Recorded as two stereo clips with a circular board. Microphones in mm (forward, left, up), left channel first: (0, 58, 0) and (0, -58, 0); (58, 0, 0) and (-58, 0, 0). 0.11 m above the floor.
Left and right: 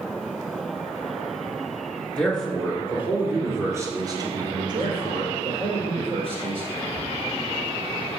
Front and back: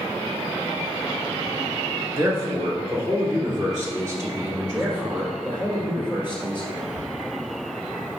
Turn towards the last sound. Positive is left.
turn(degrees=150)